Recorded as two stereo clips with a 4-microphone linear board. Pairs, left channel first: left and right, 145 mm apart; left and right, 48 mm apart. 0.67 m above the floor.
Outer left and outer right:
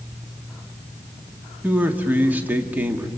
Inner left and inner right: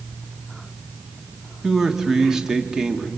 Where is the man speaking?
10° right (ahead or behind), 1.5 m.